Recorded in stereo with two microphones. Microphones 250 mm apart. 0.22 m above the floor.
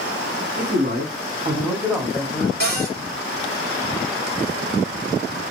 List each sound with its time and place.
0.6 s a man speaking: 50° right (ahead or behind), 2 m; by 2.5 s 20° left (ahead or behind), 1.6 m
2.6 s a cupboard door: 40° right (ahead or behind), 2.5 m